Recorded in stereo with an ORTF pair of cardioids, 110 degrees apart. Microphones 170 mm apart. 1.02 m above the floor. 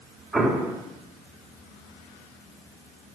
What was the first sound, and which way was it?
An explosion, straight ahead.